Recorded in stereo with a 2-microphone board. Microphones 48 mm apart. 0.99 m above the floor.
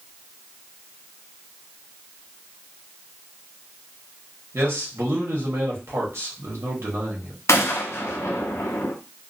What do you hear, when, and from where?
4.5 s a man speaking: 65° right (ahead or behind), 1.3 m
7.5 s a gunshot: 75° left (ahead or behind), 0.6 m